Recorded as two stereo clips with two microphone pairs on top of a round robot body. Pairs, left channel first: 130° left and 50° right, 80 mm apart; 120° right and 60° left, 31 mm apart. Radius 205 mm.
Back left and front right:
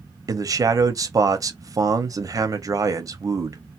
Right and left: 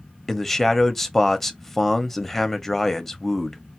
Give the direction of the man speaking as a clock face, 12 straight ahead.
2 o'clock.